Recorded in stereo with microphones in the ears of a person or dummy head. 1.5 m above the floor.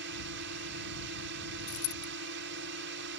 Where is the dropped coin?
80° left.